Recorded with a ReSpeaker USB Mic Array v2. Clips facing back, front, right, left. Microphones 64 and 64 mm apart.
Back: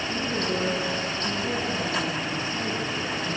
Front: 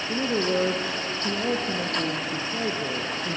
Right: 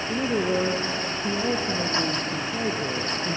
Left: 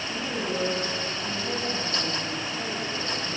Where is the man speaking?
45° right, 3 m.